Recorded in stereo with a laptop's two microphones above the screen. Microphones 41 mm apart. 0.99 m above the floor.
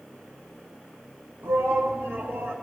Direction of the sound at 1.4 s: 85° right.